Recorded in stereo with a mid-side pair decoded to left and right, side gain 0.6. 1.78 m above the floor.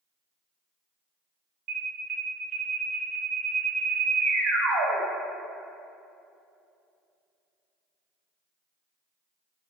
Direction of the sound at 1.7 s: 60° right.